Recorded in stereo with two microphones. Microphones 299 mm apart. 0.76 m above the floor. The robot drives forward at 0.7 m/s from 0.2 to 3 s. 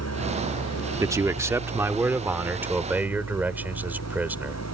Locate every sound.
0.0 s an engine running: 55° left (ahead or behind)
1.0 s a man speaking: 10° right (ahead or behind); by 4.6 s 5° right (ahead or behind)